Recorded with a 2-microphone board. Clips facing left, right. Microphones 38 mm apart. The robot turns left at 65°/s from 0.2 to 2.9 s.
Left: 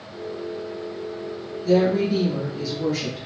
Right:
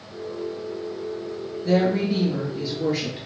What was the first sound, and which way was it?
A woman speaking, 65° right.